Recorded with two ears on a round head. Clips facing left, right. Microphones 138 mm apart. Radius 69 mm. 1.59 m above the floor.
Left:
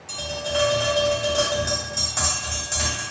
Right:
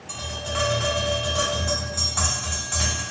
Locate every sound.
0.1 s tapping: 50° left (ahead or behind), 1.9 m